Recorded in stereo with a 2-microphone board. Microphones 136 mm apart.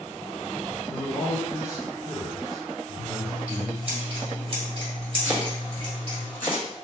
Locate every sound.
0.9 s a man speaking: 25° left (ahead or behind), 1.5 m
3.0 s scissors: 45° right (ahead or behind), 2 m
5.2 s chopping: 15° left (ahead or behind), 1.9 m